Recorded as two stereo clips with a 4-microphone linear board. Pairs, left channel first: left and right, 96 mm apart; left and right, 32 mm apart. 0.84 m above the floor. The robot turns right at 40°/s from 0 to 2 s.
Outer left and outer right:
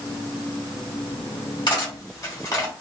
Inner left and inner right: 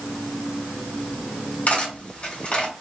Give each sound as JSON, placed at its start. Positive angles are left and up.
{"t": 1.7, "sound": "cutlery clinking", "side_deg": 50, "distance_m": 1.6}